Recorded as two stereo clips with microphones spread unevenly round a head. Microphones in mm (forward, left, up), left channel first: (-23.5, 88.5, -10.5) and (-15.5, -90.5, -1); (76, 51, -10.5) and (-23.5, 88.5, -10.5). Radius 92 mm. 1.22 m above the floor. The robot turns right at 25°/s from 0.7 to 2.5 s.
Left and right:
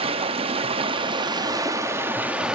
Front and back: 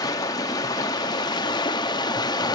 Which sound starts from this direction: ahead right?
Running water, at 0.0 s.